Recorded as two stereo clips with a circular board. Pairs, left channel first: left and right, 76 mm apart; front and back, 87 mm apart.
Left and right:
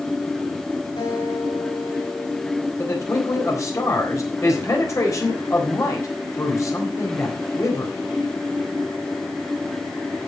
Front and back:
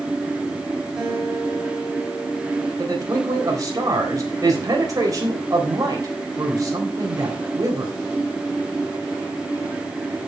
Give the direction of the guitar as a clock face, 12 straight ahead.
9 o'clock.